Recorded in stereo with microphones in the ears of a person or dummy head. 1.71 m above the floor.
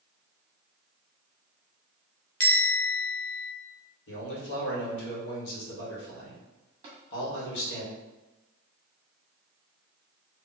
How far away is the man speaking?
About 1.7 m.